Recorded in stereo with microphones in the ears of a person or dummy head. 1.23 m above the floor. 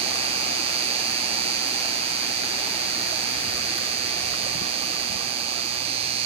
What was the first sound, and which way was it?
An insect, 30° right (ahead or behind).